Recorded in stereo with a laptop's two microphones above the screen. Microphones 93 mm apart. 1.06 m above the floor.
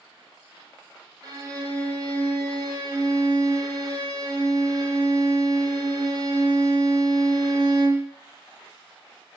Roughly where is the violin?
Right.